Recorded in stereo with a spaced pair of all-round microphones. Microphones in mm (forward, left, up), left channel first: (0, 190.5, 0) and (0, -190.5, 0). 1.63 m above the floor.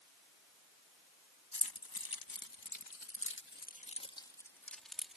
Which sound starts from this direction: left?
Keys jangling, at 1.5 s.